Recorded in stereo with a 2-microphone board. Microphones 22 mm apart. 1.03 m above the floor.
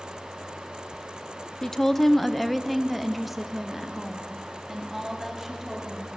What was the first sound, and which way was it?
A woman speaking, 20° left (ahead or behind).